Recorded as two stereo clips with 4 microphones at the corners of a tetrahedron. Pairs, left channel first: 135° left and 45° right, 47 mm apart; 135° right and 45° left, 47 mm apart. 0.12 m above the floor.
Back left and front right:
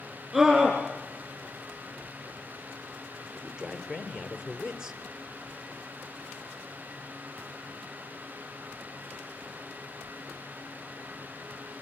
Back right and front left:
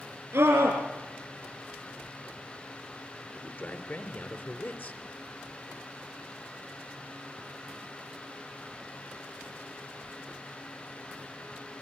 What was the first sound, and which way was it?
A scream, 35° left.